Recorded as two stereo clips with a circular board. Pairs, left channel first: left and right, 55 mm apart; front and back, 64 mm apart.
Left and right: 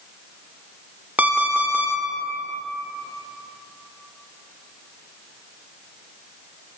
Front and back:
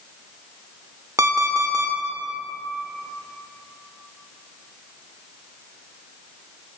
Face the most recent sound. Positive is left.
turn(degrees=-150)